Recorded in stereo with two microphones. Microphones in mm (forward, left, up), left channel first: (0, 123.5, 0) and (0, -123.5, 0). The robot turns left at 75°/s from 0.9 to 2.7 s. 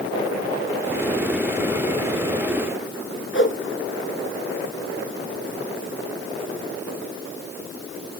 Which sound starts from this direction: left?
A whoosh, at 3.3 s.